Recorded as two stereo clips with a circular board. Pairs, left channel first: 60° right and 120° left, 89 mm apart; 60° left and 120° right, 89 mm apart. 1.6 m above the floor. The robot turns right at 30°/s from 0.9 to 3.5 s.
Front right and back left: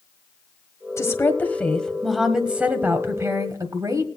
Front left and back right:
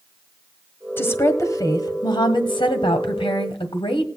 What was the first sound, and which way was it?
A woman speaking, 5° right.